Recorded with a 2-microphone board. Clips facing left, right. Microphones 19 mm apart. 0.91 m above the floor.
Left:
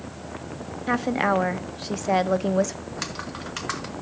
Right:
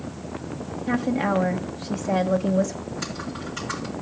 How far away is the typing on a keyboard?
About 2 m.